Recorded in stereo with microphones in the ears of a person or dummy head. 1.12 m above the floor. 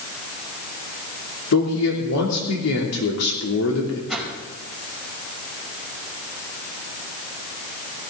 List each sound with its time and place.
1.5 s a man speaking: 85° left, 2.5 m
4.1 s a whoosh: centre (ahead or behind), 3.5 m